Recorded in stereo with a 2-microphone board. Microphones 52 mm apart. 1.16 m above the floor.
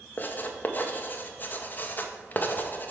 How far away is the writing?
About 0.6 m.